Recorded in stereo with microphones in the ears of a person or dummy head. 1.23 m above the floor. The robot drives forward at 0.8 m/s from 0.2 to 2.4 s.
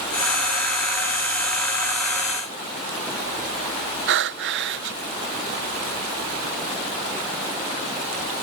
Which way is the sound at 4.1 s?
60° right (ahead or behind).